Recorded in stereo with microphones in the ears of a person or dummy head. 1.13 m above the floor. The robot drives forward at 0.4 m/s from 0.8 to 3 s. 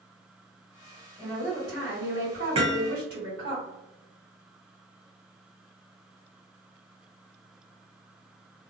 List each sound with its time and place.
1.2 s a woman speaking: 70° right (ahead or behind), 1.6 m; by 3.5 s 60° right (ahead or behind), 1.8 m
2.5 s hammering: 25° right (ahead or behind), 0.8 m; by 2.9 s 20° right (ahead or behind), 1.0 m